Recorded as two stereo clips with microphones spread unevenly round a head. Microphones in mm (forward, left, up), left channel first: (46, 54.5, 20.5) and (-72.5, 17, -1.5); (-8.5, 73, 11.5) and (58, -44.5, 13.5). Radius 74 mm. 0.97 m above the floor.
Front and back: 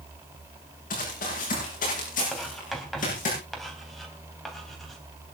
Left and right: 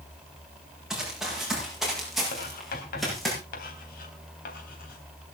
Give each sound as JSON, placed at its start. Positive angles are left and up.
{"t": 0.9, "sound": "running footsteps", "azimuth_deg": 25, "distance_m": 8.5}
{"t": 2.3, "sound": "writing", "azimuth_deg": 105, "distance_m": 3.5}